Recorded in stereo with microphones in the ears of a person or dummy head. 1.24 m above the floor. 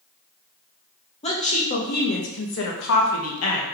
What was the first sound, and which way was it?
A woman speaking, 30° left (ahead or behind).